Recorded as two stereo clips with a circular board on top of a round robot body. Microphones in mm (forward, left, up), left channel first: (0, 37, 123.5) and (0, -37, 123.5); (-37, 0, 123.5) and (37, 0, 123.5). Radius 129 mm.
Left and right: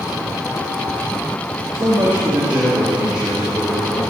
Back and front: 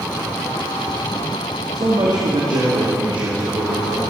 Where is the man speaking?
35° right, 1.8 m; by 4.0 s straight ahead, 3.5 m.